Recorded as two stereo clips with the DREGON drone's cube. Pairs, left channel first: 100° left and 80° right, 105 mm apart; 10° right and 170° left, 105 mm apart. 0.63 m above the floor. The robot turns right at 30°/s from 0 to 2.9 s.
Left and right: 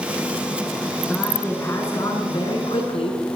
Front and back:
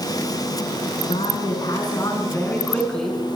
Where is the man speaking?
20° left, 6 m; by 3.2 s 70° left, 6 m.